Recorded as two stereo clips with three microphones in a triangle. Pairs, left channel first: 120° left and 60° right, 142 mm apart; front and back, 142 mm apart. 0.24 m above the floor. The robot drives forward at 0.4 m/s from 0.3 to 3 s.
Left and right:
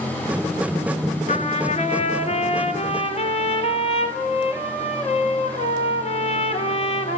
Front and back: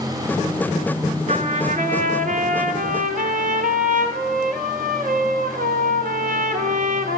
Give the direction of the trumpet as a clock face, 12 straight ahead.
7 o'clock.